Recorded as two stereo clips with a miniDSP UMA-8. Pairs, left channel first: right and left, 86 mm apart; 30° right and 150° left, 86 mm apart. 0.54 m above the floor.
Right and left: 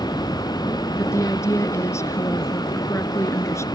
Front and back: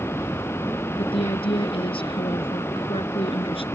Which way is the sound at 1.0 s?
30° right.